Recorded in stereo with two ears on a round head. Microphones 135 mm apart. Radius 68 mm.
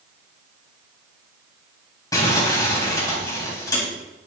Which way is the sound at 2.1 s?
25° left (ahead or behind).